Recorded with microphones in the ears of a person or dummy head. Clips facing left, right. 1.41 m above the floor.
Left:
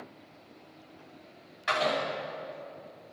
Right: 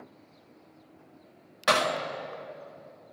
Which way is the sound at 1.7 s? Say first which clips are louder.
Right 2 dB; 75° right (ahead or behind).